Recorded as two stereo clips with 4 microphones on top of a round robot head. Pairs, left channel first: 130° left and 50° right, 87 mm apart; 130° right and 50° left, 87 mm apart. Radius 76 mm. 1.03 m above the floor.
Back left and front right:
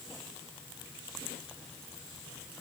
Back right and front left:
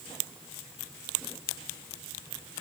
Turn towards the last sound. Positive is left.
No sound to turn to.